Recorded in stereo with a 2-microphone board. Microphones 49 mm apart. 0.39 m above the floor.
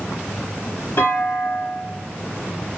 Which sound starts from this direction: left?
A clunk, at 1.0 s.